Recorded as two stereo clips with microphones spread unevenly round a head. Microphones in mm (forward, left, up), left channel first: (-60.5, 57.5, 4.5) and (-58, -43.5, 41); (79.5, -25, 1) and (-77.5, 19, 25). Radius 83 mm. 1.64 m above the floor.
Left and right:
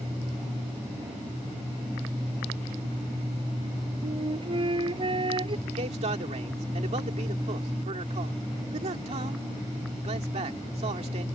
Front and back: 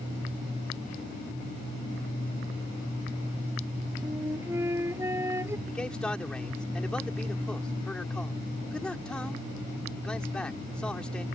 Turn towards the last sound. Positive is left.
turn(degrees=-100)